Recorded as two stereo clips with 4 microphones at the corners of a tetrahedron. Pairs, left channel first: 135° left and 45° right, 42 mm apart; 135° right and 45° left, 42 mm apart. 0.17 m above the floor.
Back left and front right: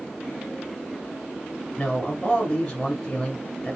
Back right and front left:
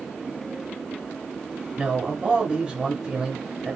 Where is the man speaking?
80° left, 1.0 m.